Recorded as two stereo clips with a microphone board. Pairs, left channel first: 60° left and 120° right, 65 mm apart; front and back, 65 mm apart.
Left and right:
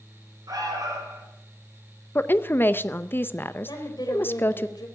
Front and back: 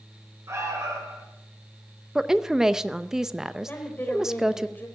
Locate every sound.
0.5 s an alarm: 140° right, 5.5 m
2.1 s a woman speaking: 100° left, 0.6 m
3.7 s a woman speaking: 60° left, 3.5 m